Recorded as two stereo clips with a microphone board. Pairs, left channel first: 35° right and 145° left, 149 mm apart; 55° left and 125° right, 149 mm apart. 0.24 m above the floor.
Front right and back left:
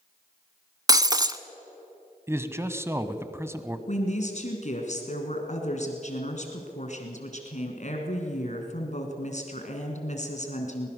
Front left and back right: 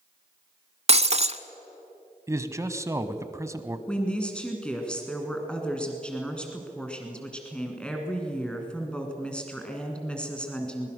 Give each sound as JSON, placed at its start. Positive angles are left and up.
{"t": 0.9, "sound": "breaking glass", "azimuth_deg": -155, "distance_m": 0.6}
{"t": 2.3, "sound": "a man speaking", "azimuth_deg": -165, "distance_m": 1.0}
{"t": 3.9, "sound": "a woman speaking", "azimuth_deg": -25, "distance_m": 2.5}